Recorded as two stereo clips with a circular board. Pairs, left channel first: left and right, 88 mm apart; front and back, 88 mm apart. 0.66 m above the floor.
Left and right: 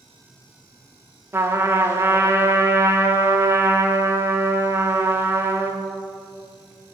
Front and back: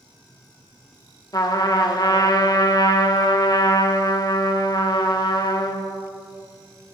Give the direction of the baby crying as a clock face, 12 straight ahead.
I don't hear a baby crying.